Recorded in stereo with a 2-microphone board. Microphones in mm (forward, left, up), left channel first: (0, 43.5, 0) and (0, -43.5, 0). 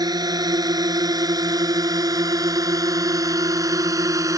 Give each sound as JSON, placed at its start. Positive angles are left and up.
{"t": 0.0, "sound": "a drone", "side_deg": -45}